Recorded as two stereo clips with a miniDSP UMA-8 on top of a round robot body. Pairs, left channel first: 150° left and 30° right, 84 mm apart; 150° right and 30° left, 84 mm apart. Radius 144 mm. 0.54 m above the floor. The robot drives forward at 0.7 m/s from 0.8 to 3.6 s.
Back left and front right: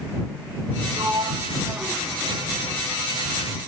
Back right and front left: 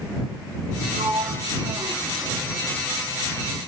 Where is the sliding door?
25° left, 1.5 m; by 2.8 s 95° left, 0.9 m.